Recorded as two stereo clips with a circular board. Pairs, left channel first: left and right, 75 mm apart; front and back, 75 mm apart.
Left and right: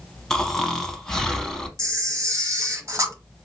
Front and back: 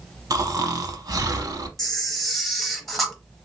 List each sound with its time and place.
0.3 s snoring: 175° left, 0.6 m
1.8 s a camera shutter: 85° right, 0.9 m